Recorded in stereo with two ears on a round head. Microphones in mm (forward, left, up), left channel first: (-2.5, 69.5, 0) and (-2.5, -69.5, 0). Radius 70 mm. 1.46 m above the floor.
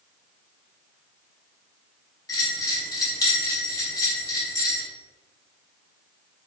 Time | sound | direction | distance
2.3 | a bell | 25° left (ahead or behind) | 3.5 m